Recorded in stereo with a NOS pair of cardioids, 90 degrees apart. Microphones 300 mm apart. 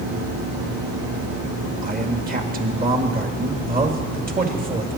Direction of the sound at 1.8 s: 30° right.